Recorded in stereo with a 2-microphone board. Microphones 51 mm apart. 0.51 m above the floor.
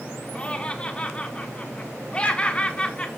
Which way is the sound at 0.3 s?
20° left (ahead or behind).